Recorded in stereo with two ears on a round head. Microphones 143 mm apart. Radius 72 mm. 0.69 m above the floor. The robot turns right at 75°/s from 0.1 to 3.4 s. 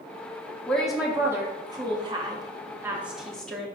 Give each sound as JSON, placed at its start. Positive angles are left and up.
{"t": 0.7, "sound": "a woman speaking", "side_deg": 5, "distance_m": 0.7}